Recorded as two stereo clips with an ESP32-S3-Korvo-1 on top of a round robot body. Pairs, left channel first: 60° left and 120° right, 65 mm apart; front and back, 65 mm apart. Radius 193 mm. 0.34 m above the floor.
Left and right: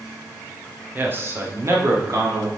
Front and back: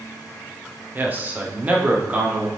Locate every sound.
0.9 s a man speaking: 150° right, 1.6 m; by 2.5 s 115° right, 2.5 m